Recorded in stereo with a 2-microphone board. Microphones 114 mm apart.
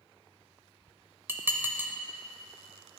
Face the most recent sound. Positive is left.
turn(degrees=-20)  # may be behind; listen again after turning